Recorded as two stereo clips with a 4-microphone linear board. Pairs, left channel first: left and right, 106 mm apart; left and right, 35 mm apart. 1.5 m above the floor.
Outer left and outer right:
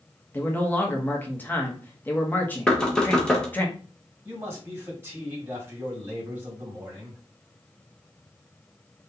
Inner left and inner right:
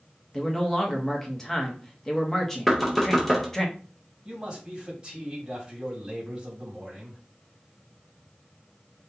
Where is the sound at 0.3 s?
15° left (ahead or behind), 1.0 m.